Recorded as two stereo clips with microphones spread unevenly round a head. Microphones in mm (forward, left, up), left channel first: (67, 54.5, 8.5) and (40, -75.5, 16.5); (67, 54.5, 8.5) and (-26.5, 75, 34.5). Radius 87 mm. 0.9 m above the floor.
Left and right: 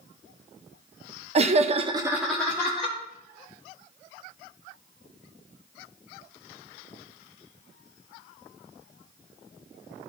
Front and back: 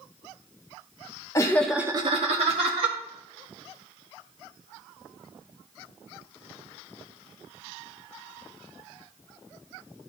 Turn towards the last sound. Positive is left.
turn(degrees=150)